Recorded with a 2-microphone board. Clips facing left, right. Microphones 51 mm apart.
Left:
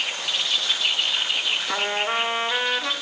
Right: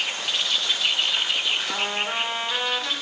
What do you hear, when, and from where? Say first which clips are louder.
1.7 s a trumpet: left 2 dB; 15° left (ahead or behind), 1.5 m